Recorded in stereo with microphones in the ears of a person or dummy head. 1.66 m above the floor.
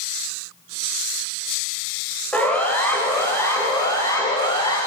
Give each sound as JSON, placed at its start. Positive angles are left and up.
{"t": 2.3, "sound": "a siren", "side_deg": 10, "distance_m": 6.5}